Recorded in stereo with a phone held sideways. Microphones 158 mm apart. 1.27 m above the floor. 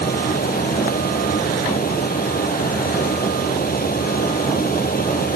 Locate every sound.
0.0 s a fan: 70° left (ahead or behind)